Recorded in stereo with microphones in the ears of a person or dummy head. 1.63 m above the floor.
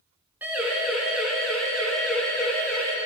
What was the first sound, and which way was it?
A siren, 10° right (ahead or behind).